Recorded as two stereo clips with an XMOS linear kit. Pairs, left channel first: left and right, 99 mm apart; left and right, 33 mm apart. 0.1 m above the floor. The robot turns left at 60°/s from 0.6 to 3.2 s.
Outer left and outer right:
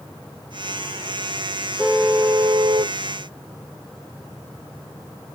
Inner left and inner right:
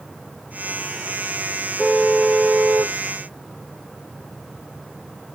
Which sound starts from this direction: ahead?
A car horn, at 1.8 s.